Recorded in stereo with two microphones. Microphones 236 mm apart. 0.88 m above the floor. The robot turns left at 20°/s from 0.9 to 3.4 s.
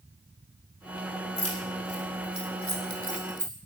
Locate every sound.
1.4 s keys jangling: 85° left, 2.5 m; by 3.5 s 50° left (ahead or behind), 2.5 m